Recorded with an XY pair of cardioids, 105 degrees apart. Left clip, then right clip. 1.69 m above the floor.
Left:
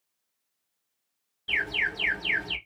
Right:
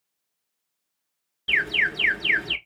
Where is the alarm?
55° right, 1.7 m.